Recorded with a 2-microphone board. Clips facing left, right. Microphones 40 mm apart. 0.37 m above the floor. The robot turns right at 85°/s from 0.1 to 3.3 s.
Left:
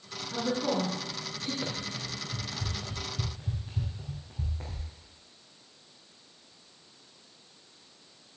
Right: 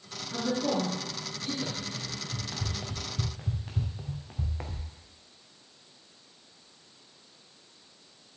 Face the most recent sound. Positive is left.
turn(degrees=-75)  # may be behind; listen again after turning